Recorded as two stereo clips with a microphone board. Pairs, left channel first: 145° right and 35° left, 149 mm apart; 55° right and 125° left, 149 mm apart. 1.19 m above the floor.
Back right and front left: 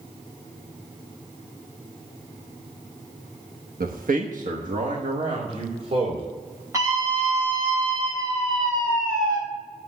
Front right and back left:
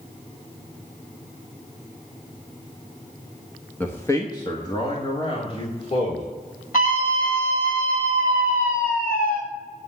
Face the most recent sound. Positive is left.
turn(degrees=-35)